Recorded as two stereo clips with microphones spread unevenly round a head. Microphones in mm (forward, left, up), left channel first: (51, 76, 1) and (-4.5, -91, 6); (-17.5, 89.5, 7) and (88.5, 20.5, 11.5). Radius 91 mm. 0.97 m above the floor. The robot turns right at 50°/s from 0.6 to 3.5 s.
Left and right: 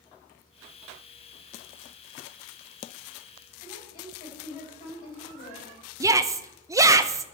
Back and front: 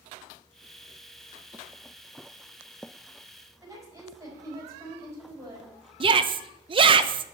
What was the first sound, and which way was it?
A woman speaking, 30° left.